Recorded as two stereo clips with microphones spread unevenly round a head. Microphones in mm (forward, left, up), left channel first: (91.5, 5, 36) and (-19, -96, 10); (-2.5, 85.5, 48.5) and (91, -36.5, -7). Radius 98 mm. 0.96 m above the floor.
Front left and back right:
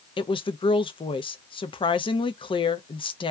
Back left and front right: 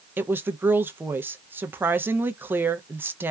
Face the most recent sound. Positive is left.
turn(degrees=-10)